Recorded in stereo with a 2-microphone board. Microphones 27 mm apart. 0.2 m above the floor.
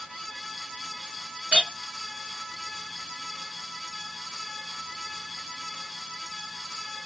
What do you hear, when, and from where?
1.5 s a clink: 50° right (ahead or behind), 1.6 m